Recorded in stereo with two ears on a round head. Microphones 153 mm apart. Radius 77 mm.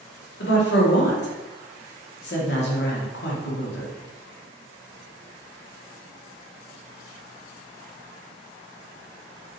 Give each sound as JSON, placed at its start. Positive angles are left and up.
{"t": 0.4, "sound": "a woman speaking", "side_deg": 70, "distance_m": 1.1}